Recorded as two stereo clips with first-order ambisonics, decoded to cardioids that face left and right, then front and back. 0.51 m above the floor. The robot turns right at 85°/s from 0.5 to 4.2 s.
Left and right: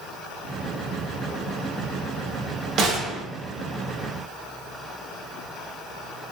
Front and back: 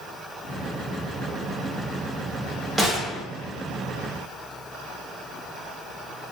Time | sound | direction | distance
2.8 | a gunshot | 100° right | 0.7 m